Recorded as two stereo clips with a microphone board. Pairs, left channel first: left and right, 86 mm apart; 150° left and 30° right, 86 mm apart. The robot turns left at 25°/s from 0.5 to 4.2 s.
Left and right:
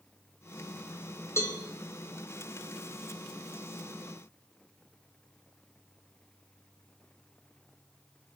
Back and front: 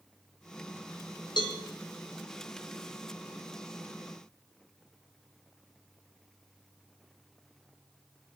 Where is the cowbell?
145° left, 1.8 m; by 1.6 s 140° left, 1.8 m.